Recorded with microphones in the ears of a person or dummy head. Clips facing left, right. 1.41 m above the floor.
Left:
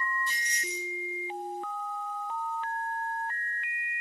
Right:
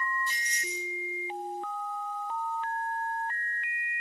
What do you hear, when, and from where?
0.3 s keys jangling: 15° left (ahead or behind), 1.7 m